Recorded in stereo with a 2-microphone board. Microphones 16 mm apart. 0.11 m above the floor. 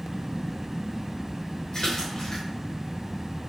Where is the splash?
60° left (ahead or behind), 3.5 m.